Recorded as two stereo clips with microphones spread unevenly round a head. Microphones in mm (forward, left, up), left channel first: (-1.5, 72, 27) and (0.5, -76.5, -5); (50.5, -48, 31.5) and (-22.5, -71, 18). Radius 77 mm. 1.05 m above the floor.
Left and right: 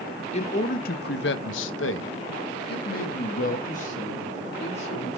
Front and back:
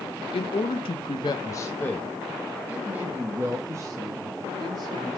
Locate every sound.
0.3 s a man speaking: 40° left, 0.9 m; by 5.2 s 145° left, 2 m